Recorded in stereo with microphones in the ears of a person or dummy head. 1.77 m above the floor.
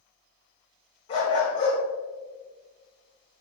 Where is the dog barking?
35° left (ahead or behind), 4 m.